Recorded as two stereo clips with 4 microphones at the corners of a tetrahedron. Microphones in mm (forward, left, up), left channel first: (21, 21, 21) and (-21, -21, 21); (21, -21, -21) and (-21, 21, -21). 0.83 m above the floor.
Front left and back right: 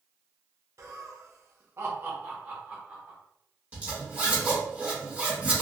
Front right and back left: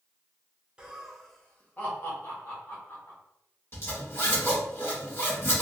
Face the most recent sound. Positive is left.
turn(degrees=-75)